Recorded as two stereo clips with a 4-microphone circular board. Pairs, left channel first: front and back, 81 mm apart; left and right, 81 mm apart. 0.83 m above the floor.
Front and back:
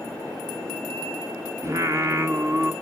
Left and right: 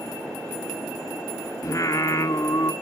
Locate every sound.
1.6 s singing: 135° left, 1.7 m